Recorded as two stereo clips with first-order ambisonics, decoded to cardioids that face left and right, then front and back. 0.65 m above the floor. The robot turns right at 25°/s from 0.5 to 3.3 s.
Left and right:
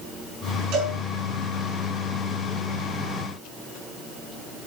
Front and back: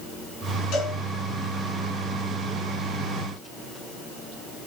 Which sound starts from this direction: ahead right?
A cowbell, at 0.7 s.